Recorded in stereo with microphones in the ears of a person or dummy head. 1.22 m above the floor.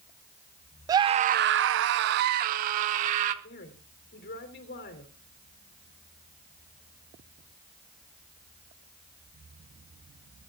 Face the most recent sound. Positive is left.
turn(degrees=55)  # may be behind; listen again after turning